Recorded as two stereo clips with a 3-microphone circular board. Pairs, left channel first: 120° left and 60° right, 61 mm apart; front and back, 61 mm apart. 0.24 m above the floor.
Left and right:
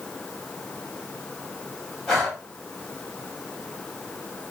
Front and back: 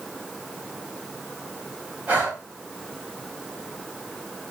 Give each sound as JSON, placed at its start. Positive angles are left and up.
{"t": 2.1, "sound": "breathing", "azimuth_deg": -165, "distance_m": 1.5}